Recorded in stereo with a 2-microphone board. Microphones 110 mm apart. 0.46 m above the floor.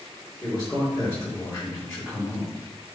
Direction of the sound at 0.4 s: 20° left (ahead or behind).